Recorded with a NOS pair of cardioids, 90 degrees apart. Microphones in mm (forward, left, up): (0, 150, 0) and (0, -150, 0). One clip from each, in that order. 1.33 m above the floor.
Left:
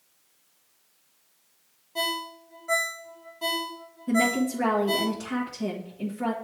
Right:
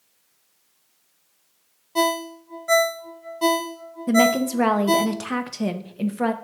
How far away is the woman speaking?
About 1.0 m.